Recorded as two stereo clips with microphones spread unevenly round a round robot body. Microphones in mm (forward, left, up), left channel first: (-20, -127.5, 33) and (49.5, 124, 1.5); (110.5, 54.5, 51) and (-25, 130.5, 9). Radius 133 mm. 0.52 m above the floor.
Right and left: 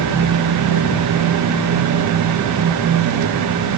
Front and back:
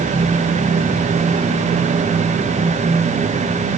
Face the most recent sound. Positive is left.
No sound to turn to.